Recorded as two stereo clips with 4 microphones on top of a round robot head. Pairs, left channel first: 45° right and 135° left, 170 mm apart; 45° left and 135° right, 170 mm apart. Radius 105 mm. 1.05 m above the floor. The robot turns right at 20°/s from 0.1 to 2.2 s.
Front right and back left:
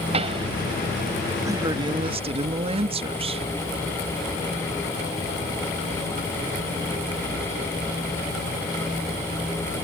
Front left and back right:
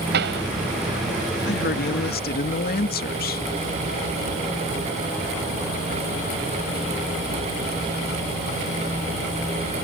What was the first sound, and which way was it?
A pop, 165° right.